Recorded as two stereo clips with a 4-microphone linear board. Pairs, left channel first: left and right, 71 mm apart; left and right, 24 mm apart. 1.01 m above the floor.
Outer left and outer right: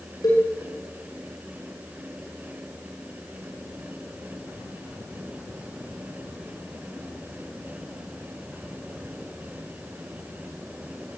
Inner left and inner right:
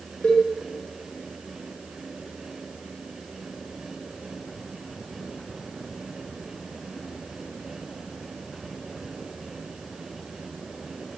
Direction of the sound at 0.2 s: 75° left (ahead or behind).